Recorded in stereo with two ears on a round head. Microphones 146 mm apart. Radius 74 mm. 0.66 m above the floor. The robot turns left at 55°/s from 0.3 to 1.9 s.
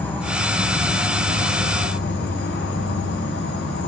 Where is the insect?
170° left, 7 m; by 3.9 s 80° left, 7 m.